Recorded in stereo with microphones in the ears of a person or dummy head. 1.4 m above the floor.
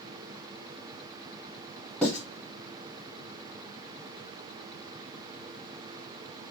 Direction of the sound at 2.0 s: 5° left (ahead or behind).